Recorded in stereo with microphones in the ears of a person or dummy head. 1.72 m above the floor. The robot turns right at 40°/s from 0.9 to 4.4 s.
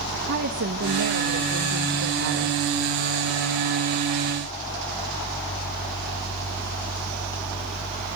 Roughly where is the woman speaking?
Behind right.